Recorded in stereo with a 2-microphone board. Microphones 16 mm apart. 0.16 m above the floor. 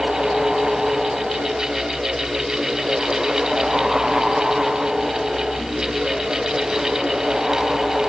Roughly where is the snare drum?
No snare drum in this recording.